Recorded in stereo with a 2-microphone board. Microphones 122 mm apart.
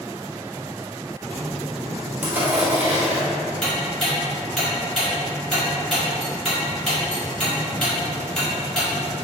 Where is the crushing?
15° right (ahead or behind), 1.2 m.